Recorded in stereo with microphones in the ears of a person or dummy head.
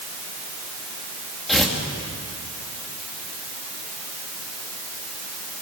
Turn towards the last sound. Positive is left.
turn(degrees=0)  # may be behind; listen again after turning